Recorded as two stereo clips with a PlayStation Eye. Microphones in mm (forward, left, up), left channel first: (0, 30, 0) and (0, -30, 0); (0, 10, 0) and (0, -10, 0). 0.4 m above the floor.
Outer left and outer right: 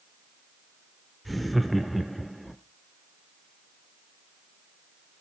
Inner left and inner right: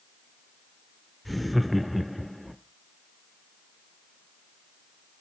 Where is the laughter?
Centre (ahead or behind), 0.8 m.